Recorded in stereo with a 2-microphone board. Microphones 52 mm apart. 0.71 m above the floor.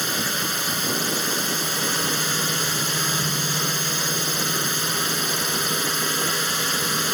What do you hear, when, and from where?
0.0 s a drone: centre (ahead or behind)